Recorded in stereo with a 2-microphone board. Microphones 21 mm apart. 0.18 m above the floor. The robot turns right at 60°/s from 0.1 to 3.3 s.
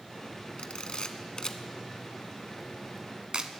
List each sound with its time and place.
0.6 s a camera shutter: 50° left (ahead or behind), 0.6 m; by 3.5 s 45° right (ahead or behind), 0.6 m